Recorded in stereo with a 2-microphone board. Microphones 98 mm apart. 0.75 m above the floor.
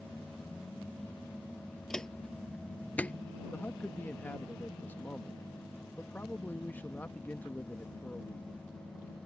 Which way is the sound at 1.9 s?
5° left (ahead or behind).